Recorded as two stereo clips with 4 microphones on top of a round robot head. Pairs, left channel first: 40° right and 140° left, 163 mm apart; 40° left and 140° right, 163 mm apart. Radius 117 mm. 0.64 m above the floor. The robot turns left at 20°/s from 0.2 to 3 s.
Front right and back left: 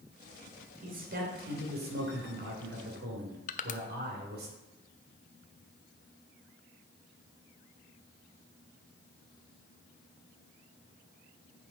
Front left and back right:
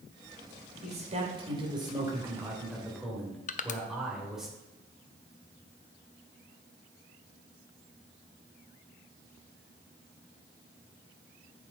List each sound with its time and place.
0.8 s a man speaking: 175° left, 2.5 m; by 4.5 s 130° left, 2.5 m
3.5 s crushing: straight ahead, 0.6 m